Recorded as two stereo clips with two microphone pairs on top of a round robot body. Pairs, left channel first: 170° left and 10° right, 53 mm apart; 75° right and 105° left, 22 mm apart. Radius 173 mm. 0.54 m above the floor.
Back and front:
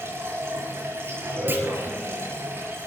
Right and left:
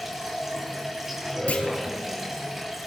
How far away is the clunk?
About 4 m.